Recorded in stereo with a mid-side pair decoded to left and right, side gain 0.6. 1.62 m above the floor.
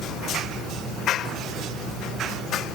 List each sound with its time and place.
Only background noise.